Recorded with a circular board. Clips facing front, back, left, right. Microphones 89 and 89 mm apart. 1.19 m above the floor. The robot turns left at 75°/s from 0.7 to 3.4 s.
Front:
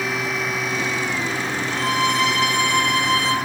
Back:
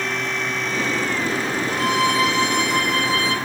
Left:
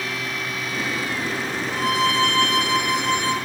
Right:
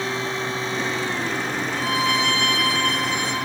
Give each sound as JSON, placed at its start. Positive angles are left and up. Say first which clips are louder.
{"t": 1.7, "sound": "a violin", "louder": "back 1 dB, left 3 dB", "azimuth_deg": 100, "distance_m": 7.0}